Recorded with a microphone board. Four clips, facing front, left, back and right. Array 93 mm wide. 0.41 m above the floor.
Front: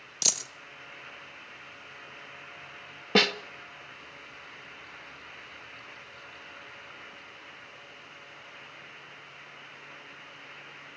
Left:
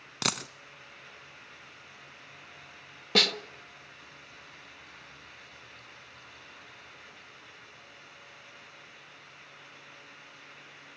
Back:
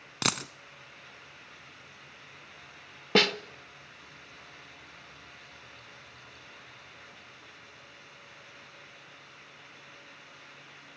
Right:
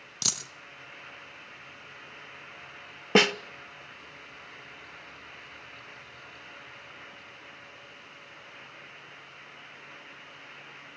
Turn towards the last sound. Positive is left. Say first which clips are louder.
# right 7 dB, even
turn(degrees=-90)